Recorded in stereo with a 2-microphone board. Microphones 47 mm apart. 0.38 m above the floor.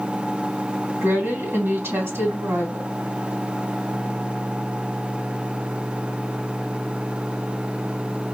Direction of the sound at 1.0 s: 60° right (ahead or behind).